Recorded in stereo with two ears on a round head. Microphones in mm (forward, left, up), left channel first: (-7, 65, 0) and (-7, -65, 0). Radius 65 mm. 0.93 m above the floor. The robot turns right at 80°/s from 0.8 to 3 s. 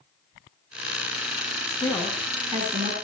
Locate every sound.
1.7 s a woman speaking: 140° left, 7 m; by 2.9 s 120° right, 7 m